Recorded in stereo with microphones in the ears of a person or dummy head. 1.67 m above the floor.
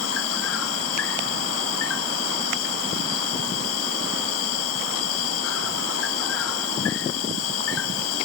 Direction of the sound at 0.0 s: 80° left.